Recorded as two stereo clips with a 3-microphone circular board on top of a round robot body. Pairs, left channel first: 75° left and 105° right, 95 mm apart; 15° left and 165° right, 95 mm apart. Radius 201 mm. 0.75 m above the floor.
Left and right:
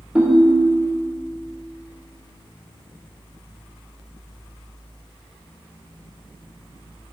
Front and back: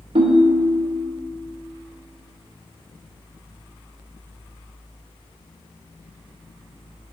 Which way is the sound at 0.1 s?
175° left.